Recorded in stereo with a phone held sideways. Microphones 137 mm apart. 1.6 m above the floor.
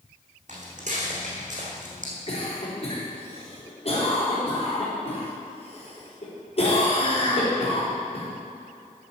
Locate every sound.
0.5 s footsteps: 60° right (ahead or behind), 3 m
2.3 s a cough: 45° left (ahead or behind), 4 m